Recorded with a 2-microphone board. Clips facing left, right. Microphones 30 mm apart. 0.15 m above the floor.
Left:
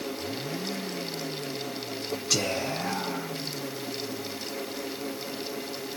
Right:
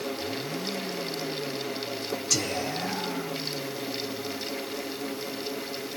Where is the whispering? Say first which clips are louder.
Left 2 dB; 20° left (ahead or behind), 1.0 m.